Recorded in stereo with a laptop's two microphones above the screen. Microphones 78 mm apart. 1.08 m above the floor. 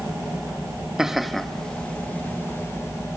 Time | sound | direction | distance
1.0 | laughter | 5° right (ahead or behind) | 1.4 m